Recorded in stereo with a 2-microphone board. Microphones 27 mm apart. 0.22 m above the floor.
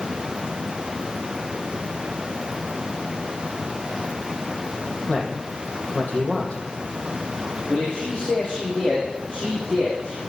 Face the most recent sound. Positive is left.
turn(degrees=20)  # may be behind; listen again after turning